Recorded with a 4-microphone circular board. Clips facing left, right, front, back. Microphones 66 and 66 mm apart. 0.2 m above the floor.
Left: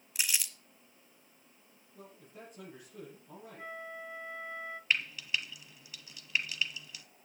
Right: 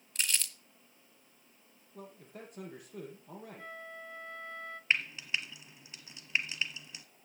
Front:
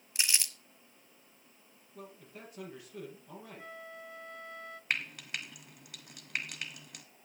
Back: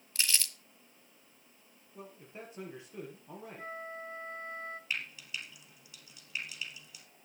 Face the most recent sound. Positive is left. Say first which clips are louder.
# right 1 dB, front 7 dB
turn(degrees=-25)